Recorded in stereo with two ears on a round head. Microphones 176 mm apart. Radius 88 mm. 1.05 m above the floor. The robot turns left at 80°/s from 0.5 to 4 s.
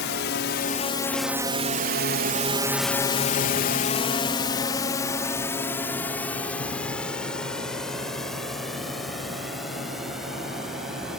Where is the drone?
60° left (ahead or behind); by 11.2 s centre (ahead or behind).